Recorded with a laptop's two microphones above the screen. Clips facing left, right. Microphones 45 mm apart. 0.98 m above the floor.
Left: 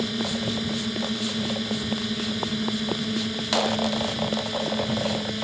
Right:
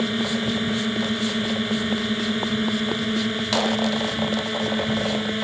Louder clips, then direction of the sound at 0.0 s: Right 4 dB; 30° right (ahead or behind).